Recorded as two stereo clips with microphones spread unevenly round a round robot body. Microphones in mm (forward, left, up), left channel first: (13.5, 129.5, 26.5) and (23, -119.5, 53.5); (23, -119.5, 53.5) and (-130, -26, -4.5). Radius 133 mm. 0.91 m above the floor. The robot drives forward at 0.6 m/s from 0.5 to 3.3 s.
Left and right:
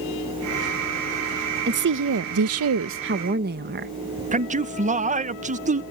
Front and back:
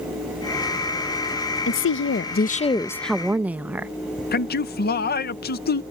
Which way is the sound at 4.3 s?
40° right.